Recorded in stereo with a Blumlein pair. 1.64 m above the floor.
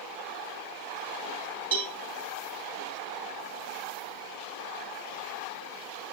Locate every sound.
1.7 s a cowbell: 65° right, 2 m